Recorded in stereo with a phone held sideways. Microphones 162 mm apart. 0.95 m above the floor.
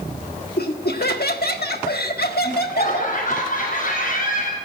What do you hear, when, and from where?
0.6 s laughter: 75° left (ahead or behind), 1.5 m
2.4 s laughter: 60° left (ahead or behind), 7.5 m